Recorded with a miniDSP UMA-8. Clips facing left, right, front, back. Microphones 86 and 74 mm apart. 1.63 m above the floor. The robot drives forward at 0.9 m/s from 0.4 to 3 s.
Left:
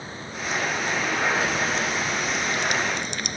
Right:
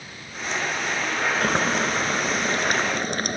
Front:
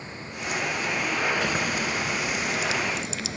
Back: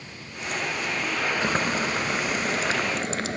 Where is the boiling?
125° right; by 3.4 s 140° right.